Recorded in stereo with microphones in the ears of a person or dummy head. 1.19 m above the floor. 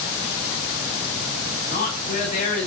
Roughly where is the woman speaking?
Left.